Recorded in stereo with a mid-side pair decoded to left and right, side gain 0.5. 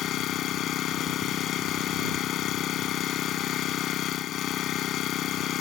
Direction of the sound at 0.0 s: 65° left.